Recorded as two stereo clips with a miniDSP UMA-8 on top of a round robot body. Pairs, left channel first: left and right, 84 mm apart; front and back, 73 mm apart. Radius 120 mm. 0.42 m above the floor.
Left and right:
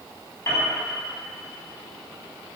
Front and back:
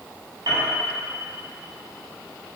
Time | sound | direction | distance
0.5 | a piano | 150° left | 4.5 m